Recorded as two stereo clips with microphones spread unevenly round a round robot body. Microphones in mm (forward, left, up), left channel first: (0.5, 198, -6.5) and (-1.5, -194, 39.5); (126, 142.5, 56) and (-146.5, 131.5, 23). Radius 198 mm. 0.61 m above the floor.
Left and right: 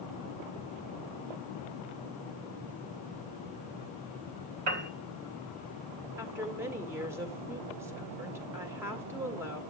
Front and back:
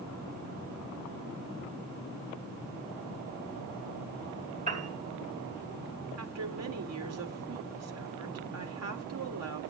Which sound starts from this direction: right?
A piano, at 4.7 s.